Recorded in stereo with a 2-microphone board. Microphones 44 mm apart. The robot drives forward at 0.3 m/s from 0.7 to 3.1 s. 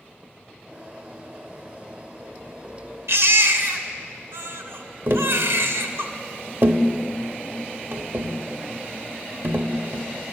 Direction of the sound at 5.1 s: 60° right (ahead or behind).